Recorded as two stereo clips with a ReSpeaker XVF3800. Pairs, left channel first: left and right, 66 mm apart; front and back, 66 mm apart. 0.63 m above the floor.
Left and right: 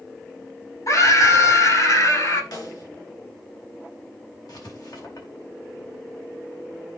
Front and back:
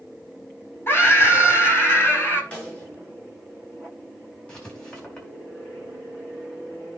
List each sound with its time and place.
0.9 s a scream: 55° left, 4.5 m
2.5 s a snare drum: 70° left, 5 m
4.5 s writing: 75° left, 4 m